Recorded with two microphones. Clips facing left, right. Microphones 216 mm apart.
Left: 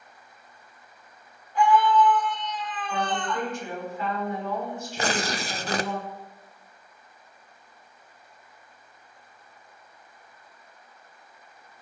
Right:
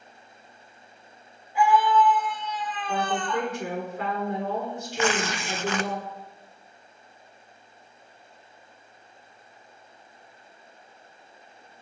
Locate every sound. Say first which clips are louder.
1.6 s a scream: left 1 dB; 10° right (ahead or behind), 5.5 m
2.9 s a woman speaking: right 2 dB; 80° right, 4.5 m
5.0 s tearing paper: right 2 dB; 40° left (ahead or behind), 0.6 m